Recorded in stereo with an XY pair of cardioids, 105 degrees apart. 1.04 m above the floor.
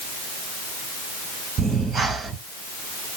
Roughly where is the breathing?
Ahead right.